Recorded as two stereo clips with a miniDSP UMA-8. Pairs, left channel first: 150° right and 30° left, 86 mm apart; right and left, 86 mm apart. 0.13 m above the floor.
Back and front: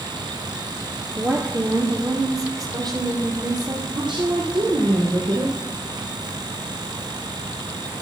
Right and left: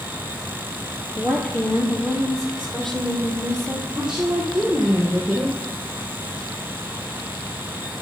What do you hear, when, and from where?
1.2 s a woman speaking: 15° right, 2.5 m; by 3.8 s 5° right, 4.5 m
3.9 s a woman speaking: 10° left, 3 m